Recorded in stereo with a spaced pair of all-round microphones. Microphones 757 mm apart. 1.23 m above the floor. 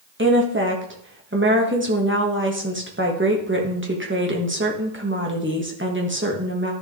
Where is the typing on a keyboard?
No typing on a keyboard in this recording.